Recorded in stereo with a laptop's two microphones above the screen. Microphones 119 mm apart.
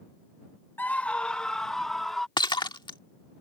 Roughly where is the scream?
Centre.